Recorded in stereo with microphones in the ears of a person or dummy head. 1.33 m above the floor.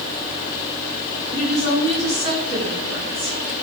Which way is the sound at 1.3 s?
40° right (ahead or behind).